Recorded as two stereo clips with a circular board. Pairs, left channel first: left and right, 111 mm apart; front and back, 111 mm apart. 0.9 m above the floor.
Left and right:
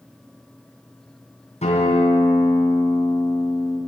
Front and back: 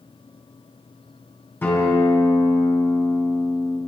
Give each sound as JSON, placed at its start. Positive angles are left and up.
{"t": 1.6, "sound": "a guitar", "azimuth_deg": 70, "distance_m": 9.5}